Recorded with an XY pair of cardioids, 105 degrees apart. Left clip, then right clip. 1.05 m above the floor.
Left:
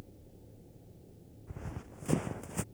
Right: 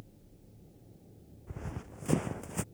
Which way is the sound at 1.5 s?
20° right.